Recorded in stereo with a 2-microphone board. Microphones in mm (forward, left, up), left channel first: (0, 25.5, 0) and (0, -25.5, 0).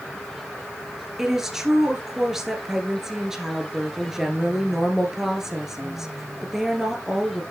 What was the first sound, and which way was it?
A woman speaking, 5° right (ahead or behind).